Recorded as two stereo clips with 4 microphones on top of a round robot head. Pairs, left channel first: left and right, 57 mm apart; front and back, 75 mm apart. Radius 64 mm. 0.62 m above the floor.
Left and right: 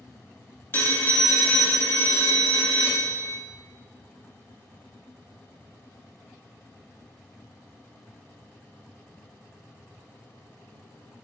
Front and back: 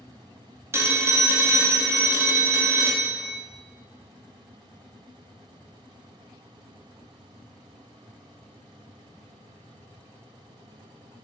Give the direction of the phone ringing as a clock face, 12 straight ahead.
8 o'clock.